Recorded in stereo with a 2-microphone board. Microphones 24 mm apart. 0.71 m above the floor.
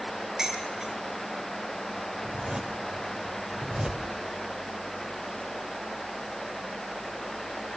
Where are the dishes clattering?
25° right (ahead or behind), 8.5 m.